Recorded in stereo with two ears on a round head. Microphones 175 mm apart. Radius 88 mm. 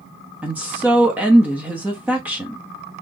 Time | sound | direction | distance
0.4 | a woman speaking | 10° right (ahead or behind) | 1.0 m